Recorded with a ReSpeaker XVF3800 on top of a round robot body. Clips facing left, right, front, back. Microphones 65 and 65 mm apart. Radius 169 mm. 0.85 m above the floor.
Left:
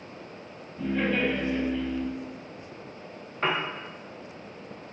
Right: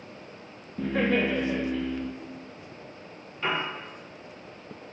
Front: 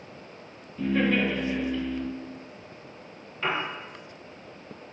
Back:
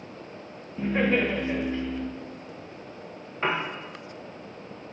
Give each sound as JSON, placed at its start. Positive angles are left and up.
{"t": 0.8, "sound": "laughter", "azimuth_deg": -120, "distance_m": 0.9}
{"t": 3.4, "sound": "a piano", "azimuth_deg": 125, "distance_m": 1.0}